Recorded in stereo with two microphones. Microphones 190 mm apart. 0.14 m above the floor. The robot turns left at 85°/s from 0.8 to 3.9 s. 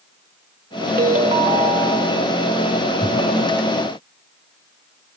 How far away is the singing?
I don't hear singing.